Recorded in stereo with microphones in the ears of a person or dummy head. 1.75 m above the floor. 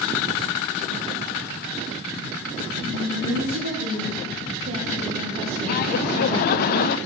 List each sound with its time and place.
2.8 s a woman speaking: 70° right (ahead or behind), 5 m; by 5.9 s 20° right (ahead or behind), 3 m
5.7 s laughter: 55° left (ahead or behind), 0.7 m